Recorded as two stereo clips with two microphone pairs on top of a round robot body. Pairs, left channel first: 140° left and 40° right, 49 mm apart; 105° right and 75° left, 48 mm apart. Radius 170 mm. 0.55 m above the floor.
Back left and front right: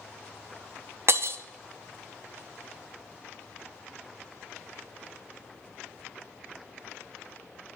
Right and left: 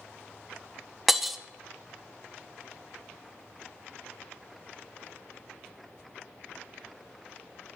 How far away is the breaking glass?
About 0.7 m.